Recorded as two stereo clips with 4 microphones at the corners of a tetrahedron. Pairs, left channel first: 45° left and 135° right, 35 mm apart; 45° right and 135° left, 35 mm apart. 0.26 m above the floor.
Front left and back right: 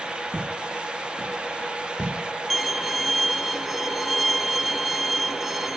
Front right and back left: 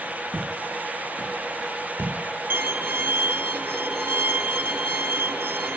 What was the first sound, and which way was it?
Footsteps, 175° left.